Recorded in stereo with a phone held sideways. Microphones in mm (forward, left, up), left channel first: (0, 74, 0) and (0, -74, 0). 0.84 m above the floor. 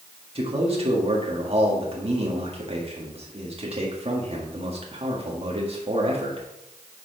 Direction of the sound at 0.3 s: 45° right (ahead or behind).